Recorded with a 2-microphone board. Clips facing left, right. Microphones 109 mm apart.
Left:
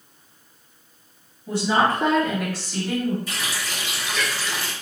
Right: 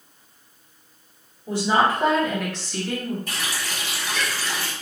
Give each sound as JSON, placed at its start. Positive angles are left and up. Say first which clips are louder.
{"t": 1.5, "sound": "a woman speaking", "louder": "even", "side_deg": -30, "distance_m": 1.6}
{"t": 3.3, "sound": "a running tap", "louder": "even", "side_deg": -60, "distance_m": 1.3}